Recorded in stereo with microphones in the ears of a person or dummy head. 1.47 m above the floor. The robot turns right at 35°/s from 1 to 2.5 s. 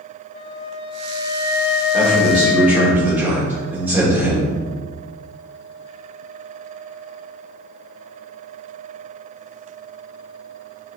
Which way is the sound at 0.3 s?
40° left.